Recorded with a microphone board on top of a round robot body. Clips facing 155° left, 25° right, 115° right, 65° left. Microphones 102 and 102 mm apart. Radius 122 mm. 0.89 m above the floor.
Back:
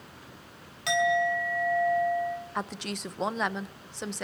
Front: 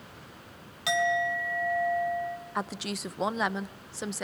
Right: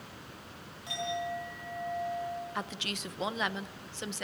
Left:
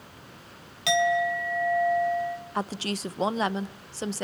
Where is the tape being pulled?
I don't hear tape being pulled.